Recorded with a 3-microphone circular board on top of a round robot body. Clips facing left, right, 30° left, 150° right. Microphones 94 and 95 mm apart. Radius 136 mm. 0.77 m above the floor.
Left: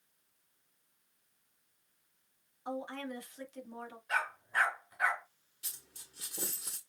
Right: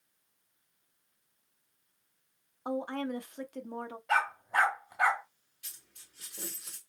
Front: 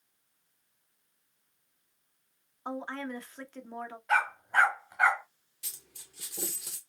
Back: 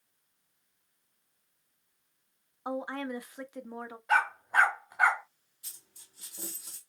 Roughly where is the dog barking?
Right.